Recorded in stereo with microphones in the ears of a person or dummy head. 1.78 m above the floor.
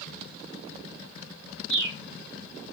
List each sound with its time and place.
1.7 s a bird: 25° right (ahead or behind), 2.5 m